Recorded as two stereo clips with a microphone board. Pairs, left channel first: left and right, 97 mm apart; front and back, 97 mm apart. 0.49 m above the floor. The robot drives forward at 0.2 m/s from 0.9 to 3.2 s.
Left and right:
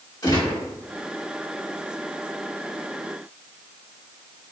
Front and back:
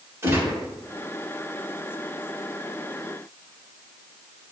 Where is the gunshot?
120° left, 1.8 m.